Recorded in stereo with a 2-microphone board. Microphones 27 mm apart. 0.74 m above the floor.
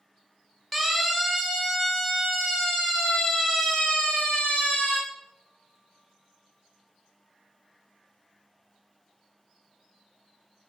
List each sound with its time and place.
0.7 s a siren: centre (ahead or behind), 4.5 m; by 5.0 s 40° left (ahead or behind), 5 m